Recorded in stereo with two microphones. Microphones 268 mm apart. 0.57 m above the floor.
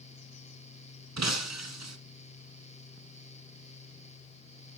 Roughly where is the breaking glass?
Right.